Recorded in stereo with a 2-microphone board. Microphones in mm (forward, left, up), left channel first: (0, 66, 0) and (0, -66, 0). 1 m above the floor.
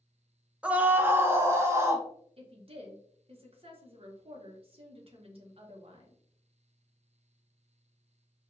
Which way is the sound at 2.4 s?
45° right (ahead or behind).